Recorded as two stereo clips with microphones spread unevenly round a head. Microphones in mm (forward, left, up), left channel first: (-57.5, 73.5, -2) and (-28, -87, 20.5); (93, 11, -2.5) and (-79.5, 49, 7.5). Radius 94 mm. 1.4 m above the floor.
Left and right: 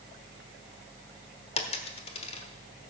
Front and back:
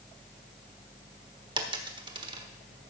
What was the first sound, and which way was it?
A dropped coin, 130° left.